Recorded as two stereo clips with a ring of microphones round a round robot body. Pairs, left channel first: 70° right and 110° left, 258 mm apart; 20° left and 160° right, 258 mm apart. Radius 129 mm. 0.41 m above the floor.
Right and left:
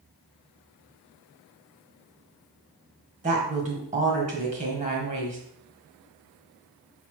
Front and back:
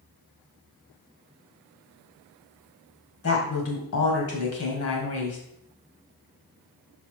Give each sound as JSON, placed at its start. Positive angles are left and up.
{"t": 3.2, "sound": "a woman speaking", "azimuth_deg": 50, "distance_m": 2.0}